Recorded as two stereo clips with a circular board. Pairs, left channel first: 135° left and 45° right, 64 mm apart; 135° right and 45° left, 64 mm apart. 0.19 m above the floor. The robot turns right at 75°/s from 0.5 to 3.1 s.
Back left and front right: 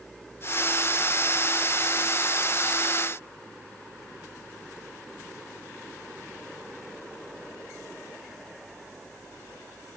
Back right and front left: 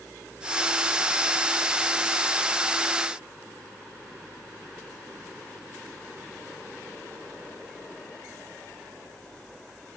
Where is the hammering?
No hammering in this recording.